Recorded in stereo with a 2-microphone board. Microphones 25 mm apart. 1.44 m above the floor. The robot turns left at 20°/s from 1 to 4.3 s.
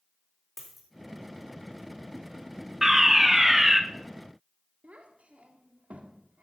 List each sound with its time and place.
0.6 s a dropped coin: centre (ahead or behind), 4 m
2.8 s a fire alarm: 15° right (ahead or behind), 1.0 m; by 3.8 s 20° right (ahead or behind), 1.0 m
4.8 s a child speaking: 70° right (ahead or behind), 1.8 m